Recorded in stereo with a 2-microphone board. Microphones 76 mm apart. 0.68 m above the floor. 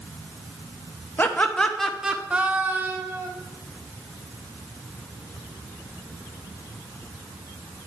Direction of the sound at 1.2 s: 25° left (ahead or behind).